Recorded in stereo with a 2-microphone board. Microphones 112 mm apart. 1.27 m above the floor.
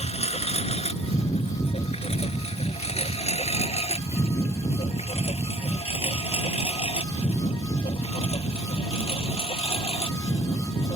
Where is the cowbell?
No cowbell in this recording.